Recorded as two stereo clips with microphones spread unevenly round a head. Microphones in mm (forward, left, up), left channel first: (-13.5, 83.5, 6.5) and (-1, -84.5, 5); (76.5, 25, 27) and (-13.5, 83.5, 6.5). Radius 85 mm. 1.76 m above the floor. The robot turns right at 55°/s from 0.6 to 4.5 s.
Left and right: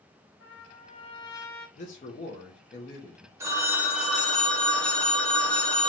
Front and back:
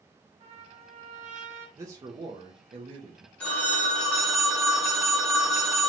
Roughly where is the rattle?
No rattle in this recording.